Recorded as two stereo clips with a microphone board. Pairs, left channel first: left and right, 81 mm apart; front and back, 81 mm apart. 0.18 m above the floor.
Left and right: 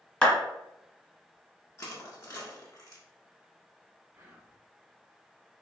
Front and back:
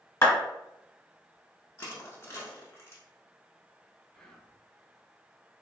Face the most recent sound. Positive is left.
turn(degrees=-75)